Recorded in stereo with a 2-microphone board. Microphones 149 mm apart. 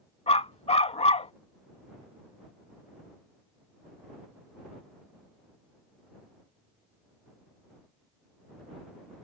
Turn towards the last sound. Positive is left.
turn(degrees=45)  # may be behind; listen again after turning